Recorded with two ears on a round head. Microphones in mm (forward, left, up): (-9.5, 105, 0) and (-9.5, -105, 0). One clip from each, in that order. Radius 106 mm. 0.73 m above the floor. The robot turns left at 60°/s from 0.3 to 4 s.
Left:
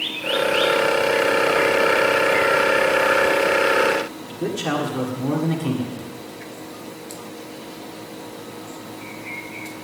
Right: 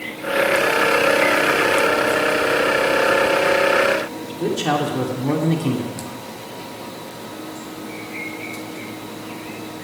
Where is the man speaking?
Centre (ahead or behind), 1.8 m.